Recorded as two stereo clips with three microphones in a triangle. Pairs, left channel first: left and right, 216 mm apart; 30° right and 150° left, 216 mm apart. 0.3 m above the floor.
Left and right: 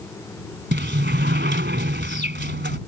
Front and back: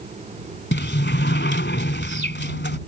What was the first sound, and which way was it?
A sliding door, 60° right.